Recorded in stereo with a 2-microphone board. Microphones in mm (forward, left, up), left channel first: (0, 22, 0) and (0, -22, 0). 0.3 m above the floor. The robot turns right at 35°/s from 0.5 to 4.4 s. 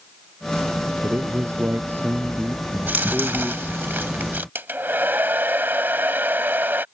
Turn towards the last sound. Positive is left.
turn(degrees=-50)  # may be behind; listen again after turning